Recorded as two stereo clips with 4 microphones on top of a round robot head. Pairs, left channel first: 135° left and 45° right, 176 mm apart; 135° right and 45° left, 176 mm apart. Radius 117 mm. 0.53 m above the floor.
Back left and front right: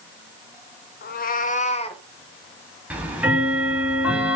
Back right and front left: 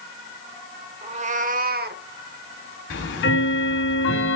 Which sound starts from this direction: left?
A cat meowing, at 1.0 s.